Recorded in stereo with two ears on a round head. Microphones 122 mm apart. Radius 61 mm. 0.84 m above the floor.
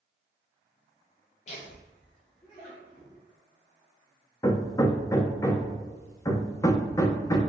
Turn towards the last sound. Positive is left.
turn(degrees=25)  # may be behind; listen again after turning